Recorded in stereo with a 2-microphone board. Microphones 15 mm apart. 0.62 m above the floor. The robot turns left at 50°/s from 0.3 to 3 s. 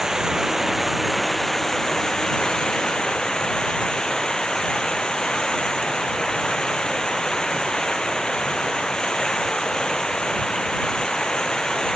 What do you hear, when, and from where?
0.0 s running water: 135° right; by 12.0 s 90° left